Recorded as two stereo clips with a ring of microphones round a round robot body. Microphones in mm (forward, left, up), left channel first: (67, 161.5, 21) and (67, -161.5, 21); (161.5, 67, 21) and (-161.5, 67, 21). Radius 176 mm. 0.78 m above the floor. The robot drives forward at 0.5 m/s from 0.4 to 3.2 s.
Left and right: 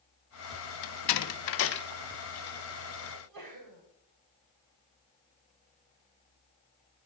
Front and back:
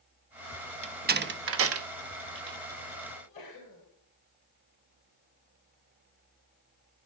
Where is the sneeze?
70° right, 3.5 m.